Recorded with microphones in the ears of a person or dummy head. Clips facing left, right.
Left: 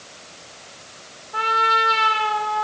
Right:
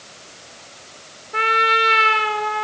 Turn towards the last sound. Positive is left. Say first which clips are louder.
# right 2 dB
turn(degrees=-35)  # may be behind; listen again after turning